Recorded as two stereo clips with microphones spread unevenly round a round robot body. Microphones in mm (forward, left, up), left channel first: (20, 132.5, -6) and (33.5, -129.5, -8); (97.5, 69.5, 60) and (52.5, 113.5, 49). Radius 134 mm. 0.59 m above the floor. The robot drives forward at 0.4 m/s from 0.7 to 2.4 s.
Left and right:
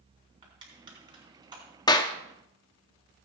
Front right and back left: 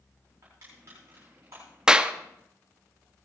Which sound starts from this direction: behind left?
A clap, at 1.9 s.